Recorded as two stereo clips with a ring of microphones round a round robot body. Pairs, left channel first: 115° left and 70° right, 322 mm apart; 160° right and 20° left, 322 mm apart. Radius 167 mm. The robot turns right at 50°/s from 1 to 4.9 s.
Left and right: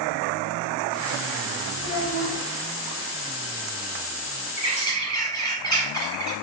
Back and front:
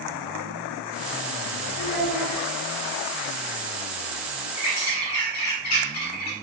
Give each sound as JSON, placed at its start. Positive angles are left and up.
{"t": 1.8, "sound": "a child speaking", "azimuth_deg": -155, "distance_m": 1.6}
{"t": 4.6, "sound": "a bird", "azimuth_deg": 175, "distance_m": 0.9}